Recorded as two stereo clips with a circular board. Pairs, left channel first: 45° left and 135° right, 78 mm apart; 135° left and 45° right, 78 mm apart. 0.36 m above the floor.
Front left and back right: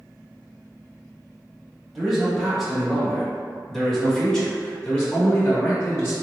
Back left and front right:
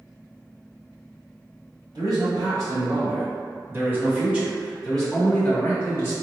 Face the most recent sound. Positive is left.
turn(degrees=105)